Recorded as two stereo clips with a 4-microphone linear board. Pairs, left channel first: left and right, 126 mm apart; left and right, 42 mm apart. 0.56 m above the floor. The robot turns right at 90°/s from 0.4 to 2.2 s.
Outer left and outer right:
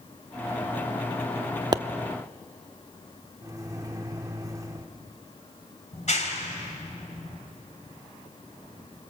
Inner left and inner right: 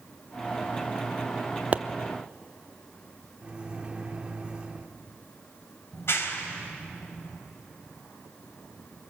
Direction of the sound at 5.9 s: 65° left (ahead or behind).